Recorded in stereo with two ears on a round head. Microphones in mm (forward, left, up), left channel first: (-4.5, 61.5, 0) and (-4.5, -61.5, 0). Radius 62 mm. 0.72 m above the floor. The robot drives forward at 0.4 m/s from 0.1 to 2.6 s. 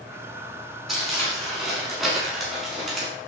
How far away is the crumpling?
About 7.5 m.